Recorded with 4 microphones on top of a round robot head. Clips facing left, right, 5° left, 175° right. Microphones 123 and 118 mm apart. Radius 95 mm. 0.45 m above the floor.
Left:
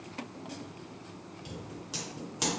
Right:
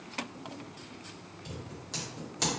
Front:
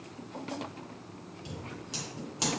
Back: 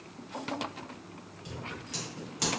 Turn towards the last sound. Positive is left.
turn(degrees=20)